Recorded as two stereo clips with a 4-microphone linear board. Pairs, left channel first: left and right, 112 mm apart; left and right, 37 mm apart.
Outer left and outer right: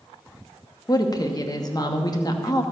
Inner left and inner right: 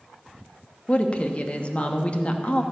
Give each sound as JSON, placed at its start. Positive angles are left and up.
{"t": 0.9, "sound": "a woman speaking", "side_deg": 35, "distance_m": 1.1}